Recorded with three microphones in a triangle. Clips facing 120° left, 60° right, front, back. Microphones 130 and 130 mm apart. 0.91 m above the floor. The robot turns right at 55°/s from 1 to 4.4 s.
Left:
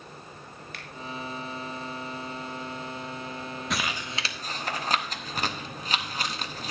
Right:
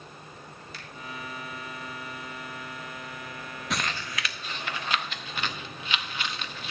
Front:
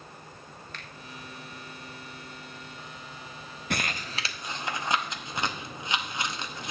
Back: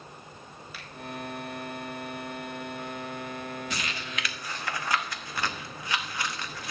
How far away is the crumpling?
About 0.8 m.